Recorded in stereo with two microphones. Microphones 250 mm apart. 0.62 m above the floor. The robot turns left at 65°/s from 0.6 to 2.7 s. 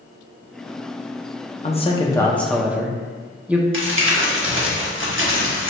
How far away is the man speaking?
About 0.6 m.